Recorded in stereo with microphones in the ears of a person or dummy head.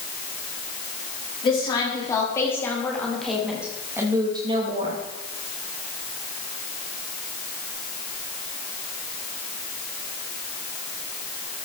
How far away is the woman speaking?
About 4 m.